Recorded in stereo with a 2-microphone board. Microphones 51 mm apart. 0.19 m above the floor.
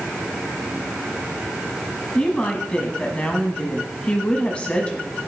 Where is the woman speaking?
25° left (ahead or behind), 1.3 m.